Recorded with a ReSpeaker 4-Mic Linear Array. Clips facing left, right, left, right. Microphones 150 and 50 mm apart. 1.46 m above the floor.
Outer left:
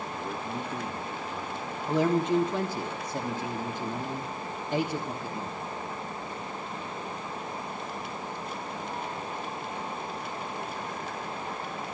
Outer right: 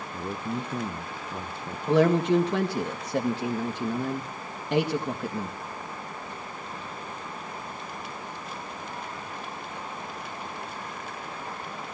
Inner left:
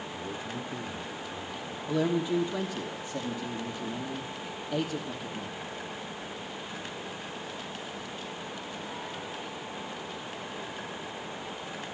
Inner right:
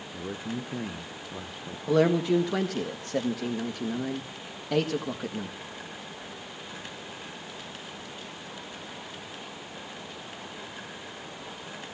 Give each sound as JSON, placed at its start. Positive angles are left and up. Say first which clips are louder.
{"t": 0.1, "sound": "a man speaking", "louder": "outer right 5 dB, inner right 5 dB", "side_deg": -30, "distance_m": 1.0}
{"t": 1.9, "sound": "a man speaking", "louder": "outer right 4 dB, inner right 5 dB", "side_deg": -75, "distance_m": 1.7}